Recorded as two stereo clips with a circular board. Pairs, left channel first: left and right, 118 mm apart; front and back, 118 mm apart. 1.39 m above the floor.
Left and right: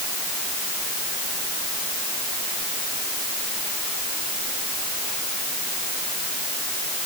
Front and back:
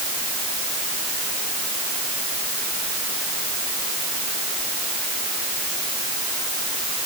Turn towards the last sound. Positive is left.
No sound to turn to.